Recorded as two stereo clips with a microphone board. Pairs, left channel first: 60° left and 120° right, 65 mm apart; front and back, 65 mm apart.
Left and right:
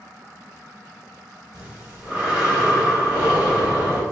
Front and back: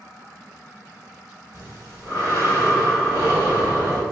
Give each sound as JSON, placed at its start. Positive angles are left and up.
{"t": 1.5, "sound": "breathing", "azimuth_deg": 170, "distance_m": 1.8}